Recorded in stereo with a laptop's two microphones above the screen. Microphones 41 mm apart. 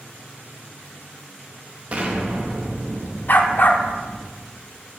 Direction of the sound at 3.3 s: 50° left (ahead or behind).